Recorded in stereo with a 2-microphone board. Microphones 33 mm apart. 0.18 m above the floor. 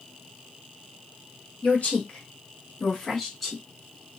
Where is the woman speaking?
50° left (ahead or behind), 1.8 m; by 3.6 s centre (ahead or behind), 1.5 m.